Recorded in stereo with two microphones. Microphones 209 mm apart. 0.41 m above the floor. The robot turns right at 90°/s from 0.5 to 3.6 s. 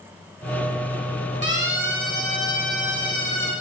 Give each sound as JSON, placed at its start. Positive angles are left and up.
{"t": 1.4, "sound": "a siren", "side_deg": 60, "distance_m": 5.5}